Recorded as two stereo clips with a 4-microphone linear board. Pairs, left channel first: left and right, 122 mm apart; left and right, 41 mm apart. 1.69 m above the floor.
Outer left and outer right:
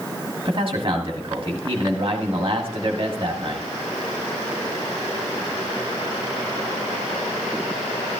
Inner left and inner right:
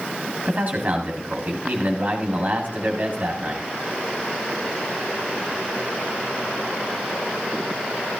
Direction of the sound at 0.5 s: 40° right (ahead or behind).